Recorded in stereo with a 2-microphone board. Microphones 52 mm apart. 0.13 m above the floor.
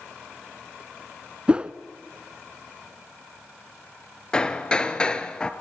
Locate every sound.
1.5 s a whoosh: 20° right (ahead or behind), 0.6 m
4.3 s hammering: 20° left (ahead or behind), 1.2 m